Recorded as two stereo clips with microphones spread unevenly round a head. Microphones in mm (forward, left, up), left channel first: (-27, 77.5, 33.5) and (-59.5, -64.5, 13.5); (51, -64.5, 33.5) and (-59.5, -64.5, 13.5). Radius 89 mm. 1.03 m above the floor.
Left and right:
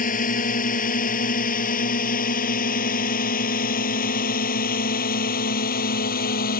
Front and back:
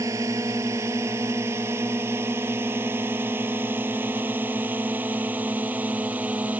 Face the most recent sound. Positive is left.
turn(degrees=100)